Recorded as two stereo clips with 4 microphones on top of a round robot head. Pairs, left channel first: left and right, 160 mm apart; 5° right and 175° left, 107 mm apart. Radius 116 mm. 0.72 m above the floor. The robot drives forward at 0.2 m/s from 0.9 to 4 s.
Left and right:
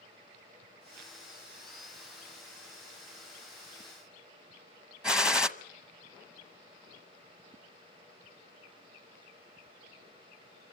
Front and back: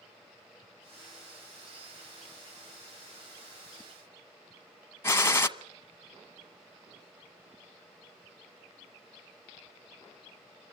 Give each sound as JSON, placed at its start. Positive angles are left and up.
{"t": 5.0, "sound": "a gunshot", "azimuth_deg": -10, "distance_m": 1.0}